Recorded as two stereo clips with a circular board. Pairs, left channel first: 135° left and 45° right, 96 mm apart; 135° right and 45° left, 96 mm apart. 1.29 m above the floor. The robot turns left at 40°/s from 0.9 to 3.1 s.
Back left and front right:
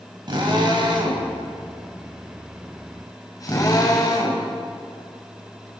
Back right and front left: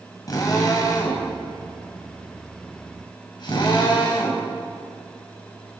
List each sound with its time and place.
0.3 s a drill: 85° right, 5.5 m; by 4.5 s 175° right, 5.5 m